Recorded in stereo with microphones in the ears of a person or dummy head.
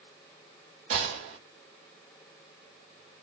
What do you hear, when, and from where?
0.9 s a gunshot: 40° right (ahead or behind), 1.2 m